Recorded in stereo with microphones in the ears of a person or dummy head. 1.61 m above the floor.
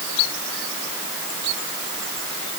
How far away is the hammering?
I don't hear hammering.